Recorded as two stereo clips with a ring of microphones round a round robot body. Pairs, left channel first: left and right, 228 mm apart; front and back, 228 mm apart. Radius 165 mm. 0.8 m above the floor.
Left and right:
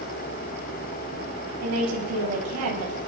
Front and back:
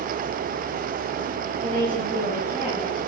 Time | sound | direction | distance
1.6 | a woman speaking | 105° right | 6 m